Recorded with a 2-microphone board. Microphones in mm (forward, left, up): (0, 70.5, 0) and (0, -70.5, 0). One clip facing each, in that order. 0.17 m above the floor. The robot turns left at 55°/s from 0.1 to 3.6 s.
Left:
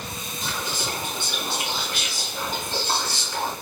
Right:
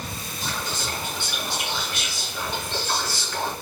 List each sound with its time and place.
0.4 s whispering: 170° right, 1.9 m; by 3.5 s 20° left, 1.9 m